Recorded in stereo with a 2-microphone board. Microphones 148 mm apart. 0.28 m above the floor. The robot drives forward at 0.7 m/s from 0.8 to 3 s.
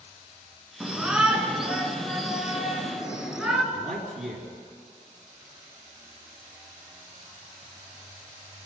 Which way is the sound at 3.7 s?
60° right (ahead or behind).